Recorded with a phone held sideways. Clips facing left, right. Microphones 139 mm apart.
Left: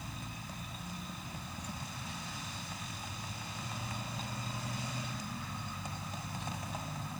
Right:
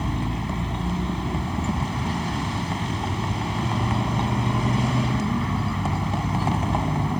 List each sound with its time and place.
0.0 s a vehicle: 85° right